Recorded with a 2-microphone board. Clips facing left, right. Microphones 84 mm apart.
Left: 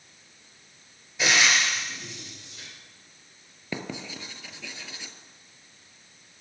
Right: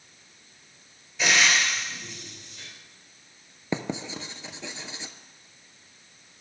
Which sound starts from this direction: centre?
Frying, at 1.2 s.